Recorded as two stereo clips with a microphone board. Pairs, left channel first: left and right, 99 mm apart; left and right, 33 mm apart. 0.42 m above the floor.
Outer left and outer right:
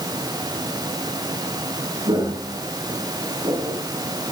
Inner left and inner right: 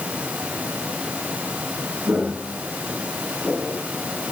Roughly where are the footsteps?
Right.